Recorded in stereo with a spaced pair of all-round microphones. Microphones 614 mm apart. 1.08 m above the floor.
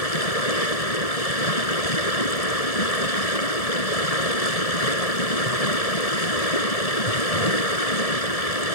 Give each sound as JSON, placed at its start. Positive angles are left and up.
{"t": 0.0, "sound": "running water", "side_deg": 75}